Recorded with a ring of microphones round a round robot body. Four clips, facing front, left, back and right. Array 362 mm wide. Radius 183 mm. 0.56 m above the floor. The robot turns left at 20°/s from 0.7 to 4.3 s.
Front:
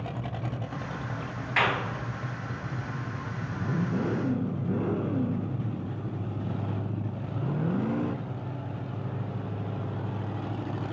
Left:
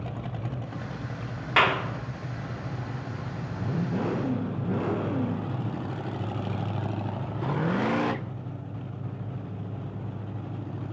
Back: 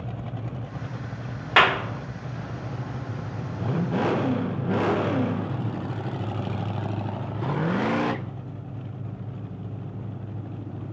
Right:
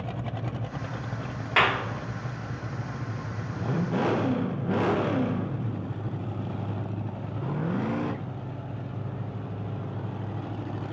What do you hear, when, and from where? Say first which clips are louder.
1.6 s a clap: left 1 dB, back 7 dB; straight behind, 1.3 m; by 1.8 s 175° left, 1.3 m